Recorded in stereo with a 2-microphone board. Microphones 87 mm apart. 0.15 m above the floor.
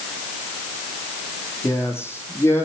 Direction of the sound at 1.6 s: 30° left (ahead or behind).